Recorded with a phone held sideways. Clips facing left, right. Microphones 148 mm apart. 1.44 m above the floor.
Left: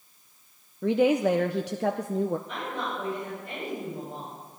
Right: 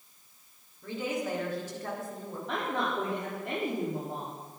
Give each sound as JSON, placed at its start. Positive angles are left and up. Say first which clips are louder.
{"t": 0.8, "sound": "a woman speaking", "louder": "left 12 dB", "side_deg": 80, "distance_m": 0.8}
{"t": 2.5, "sound": "a woman speaking", "louder": "right 2 dB", "side_deg": -85, "distance_m": 4.5}